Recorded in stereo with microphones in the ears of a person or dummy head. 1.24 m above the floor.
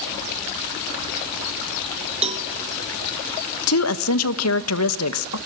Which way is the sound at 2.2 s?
45° right (ahead or behind).